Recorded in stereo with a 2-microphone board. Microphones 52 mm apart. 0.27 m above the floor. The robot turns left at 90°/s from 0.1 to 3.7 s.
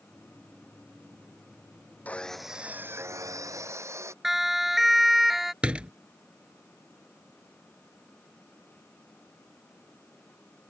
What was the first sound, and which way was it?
Sawing, 30° left.